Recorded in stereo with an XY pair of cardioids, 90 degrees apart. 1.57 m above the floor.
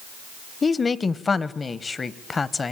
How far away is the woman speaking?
About 1.0 m.